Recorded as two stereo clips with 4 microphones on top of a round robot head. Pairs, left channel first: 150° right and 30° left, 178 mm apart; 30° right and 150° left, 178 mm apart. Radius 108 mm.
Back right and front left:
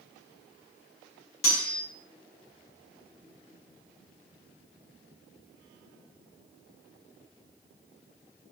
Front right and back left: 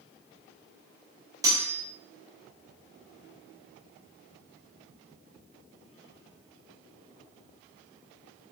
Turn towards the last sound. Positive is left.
turn(degrees=-140)